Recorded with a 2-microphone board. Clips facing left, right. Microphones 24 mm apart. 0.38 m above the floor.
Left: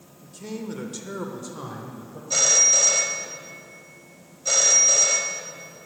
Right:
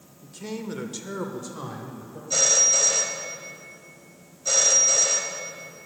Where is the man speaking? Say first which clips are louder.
Even; 20° right (ahead or behind), 0.9 m; by 2.2 s centre (ahead or behind), 1.4 m.